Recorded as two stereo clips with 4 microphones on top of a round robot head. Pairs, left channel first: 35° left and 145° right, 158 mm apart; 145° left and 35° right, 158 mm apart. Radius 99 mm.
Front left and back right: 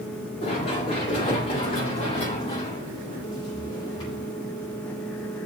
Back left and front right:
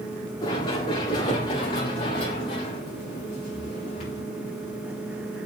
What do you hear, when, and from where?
0.4 s running footsteps: 85° left, 7 m; by 4.2 s 100° left, 7.5 m